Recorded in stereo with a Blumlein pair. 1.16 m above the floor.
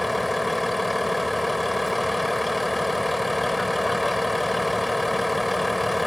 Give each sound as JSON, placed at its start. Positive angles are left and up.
{"t": 0.0, "sound": "a vehicle", "azimuth_deg": 5}